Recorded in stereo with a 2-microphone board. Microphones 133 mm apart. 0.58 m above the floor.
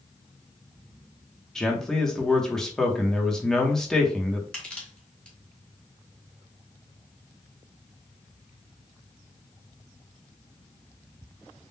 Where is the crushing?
10° left (ahead or behind), 1.8 m.